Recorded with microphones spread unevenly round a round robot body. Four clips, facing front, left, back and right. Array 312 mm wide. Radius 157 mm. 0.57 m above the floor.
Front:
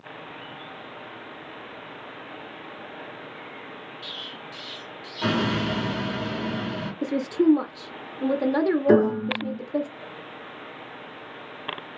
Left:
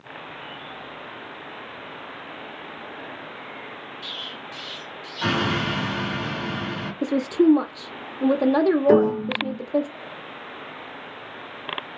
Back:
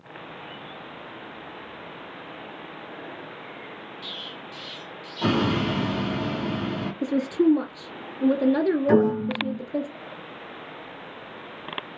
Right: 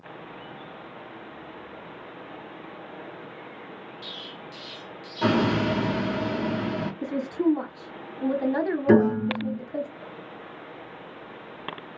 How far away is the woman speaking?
About 0.6 m.